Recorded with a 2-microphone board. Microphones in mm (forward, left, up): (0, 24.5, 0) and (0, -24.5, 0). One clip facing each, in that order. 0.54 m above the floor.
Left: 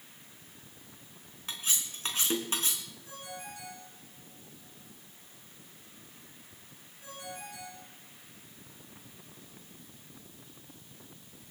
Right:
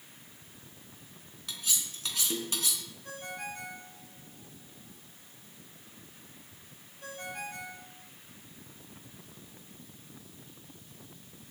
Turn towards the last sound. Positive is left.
turn(degrees=-55)  # may be behind; listen again after turning